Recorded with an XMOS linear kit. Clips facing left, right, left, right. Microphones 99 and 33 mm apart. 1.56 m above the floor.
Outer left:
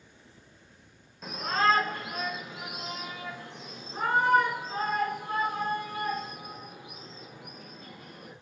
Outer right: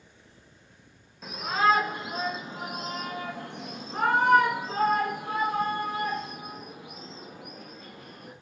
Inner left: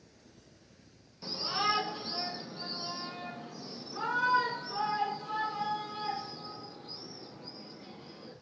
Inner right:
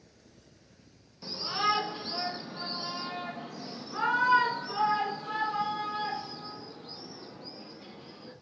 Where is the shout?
Centre (ahead or behind), 1.8 m; by 8.3 s 75° right (ahead or behind), 4.5 m.